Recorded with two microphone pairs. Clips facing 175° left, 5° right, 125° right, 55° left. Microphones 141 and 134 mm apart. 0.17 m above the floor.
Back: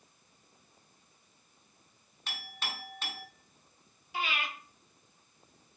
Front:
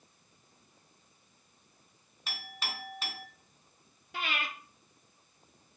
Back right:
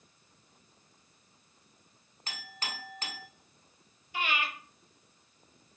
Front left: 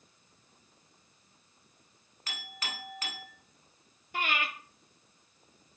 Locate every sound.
2.3 s a clink: 85° right, 0.7 m
4.1 s breathing: 25° left, 0.6 m